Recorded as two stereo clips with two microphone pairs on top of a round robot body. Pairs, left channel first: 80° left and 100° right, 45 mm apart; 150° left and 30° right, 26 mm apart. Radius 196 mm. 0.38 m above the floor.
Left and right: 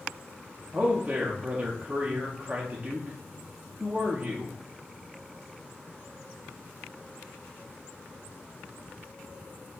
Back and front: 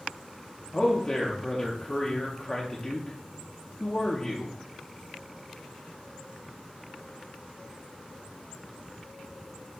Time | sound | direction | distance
0.7 | a man speaking | 155° right | 1.0 m